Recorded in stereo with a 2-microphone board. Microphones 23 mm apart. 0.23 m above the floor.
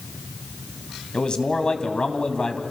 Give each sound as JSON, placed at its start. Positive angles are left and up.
{"t": 1.1, "sound": "a man speaking", "side_deg": 35, "distance_m": 2.0}